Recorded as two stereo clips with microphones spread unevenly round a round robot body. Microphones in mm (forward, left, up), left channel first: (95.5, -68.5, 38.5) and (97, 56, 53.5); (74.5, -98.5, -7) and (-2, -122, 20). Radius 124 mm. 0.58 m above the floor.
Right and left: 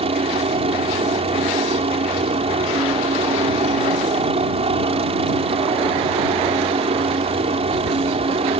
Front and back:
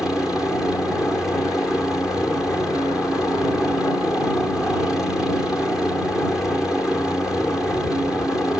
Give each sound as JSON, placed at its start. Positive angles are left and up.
{"t": 0.0, "sound": "a helicopter", "azimuth_deg": 95}